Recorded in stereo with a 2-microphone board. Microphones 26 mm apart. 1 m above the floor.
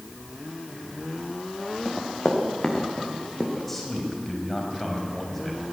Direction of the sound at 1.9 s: 25° left (ahead or behind).